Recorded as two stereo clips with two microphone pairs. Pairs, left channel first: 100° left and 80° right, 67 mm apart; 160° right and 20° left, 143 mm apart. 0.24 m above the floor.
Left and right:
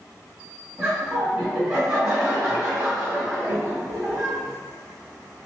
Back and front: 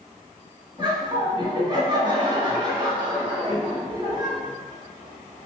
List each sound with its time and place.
0.8 s laughter: straight ahead, 1.6 m